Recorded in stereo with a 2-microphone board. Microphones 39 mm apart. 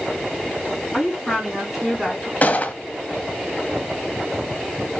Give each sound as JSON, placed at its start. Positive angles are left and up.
{"t": 0.9, "sound": "a woman speaking", "side_deg": -5, "distance_m": 3.5}
{"t": 2.4, "sound": "a gunshot", "side_deg": 40, "distance_m": 0.6}